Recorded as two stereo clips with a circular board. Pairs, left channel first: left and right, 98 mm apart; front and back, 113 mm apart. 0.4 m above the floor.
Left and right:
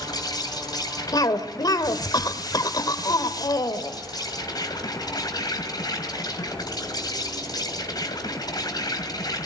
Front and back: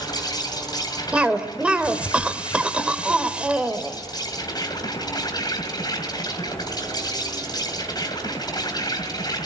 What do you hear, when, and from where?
0.0 s an insect: 50° left, 2.5 m
1.1 s a cough: 105° left, 1.8 m